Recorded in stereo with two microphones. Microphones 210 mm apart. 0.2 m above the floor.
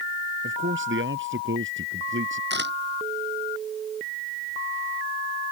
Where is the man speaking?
70° right (ahead or behind).